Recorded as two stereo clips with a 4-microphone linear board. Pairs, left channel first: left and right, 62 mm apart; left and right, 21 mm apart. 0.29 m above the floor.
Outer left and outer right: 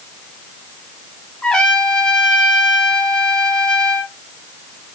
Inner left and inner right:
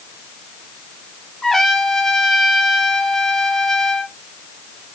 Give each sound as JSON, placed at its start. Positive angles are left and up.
{"t": 1.4, "sound": "a trumpet", "side_deg": 15, "distance_m": 0.7}